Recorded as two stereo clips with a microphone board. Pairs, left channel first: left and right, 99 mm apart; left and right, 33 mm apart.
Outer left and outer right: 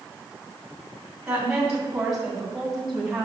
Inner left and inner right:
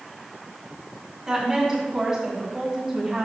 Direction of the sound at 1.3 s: 10° right (ahead or behind).